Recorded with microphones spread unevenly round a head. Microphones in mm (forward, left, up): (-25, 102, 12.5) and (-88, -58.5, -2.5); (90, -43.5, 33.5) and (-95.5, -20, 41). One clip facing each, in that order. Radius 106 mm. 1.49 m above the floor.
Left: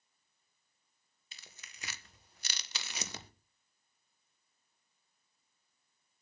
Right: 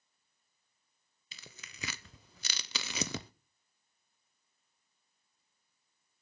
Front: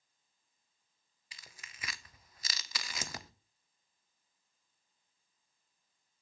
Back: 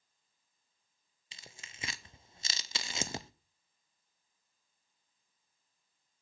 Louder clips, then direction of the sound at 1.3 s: Right 5 dB, back 3 dB; 120° right.